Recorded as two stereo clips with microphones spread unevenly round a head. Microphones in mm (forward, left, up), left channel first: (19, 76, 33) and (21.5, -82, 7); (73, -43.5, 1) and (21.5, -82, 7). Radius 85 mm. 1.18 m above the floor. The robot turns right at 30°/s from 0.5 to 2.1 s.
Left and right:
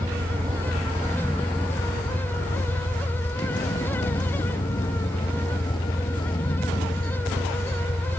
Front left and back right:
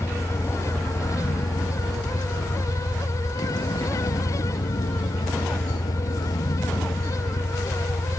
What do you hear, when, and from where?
0.0 s a vehicle: 20° right; by 8.2 s 30° left